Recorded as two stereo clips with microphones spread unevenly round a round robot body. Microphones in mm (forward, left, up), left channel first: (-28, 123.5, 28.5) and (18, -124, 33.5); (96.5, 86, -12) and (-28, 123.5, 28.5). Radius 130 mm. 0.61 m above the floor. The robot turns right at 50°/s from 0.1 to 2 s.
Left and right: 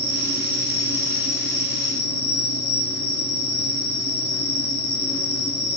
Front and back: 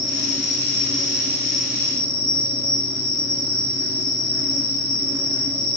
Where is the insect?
5° left, 10 m; by 5.8 s 100° left, 10 m.